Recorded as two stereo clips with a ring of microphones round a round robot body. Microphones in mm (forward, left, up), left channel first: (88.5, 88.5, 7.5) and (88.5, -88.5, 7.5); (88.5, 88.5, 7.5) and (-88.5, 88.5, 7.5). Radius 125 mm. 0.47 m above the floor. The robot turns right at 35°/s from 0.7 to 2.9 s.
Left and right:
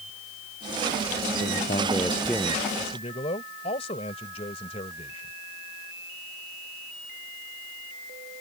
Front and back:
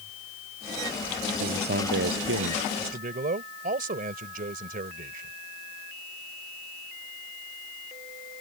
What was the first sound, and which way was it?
A man speaking, 145° left.